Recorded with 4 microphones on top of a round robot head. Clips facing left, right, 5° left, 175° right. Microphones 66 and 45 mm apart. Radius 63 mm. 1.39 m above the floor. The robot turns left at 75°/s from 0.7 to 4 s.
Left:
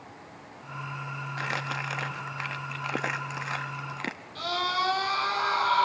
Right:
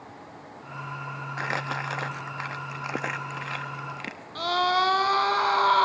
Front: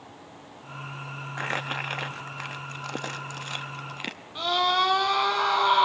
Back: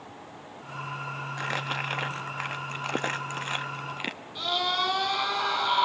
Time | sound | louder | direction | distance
1.4 | crumpling | right 3 dB, front 2 dB | 50° right | 0.8 m
4.3 | a scream | right 6 dB, front 5 dB | 55° right | 4 m